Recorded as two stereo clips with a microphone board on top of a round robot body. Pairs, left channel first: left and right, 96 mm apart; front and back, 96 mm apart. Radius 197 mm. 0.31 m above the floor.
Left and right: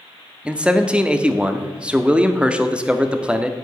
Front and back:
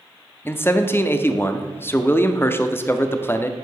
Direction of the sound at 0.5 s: 25° right.